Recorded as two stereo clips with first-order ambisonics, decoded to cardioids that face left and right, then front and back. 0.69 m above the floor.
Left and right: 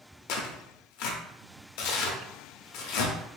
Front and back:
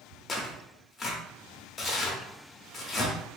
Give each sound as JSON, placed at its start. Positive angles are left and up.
{"t": 0.3, "sound": "tearing paper", "azimuth_deg": 75, "distance_m": 0.7}